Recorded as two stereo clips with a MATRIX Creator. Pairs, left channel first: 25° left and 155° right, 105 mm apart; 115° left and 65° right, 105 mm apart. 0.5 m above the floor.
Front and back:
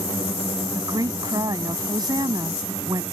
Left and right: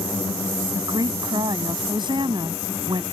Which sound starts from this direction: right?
A woman speaking, at 0.8 s.